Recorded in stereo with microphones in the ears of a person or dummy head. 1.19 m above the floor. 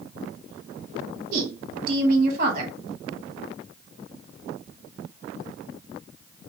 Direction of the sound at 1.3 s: 45° right (ahead or behind).